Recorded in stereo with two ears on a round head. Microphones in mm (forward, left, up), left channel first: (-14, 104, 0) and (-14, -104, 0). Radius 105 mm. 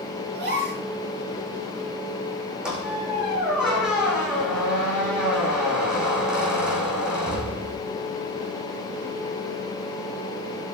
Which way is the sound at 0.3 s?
45° right (ahead or behind).